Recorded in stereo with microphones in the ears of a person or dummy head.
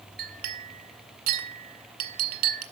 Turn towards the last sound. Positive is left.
turn(degrees=-55)  # may be behind; listen again after turning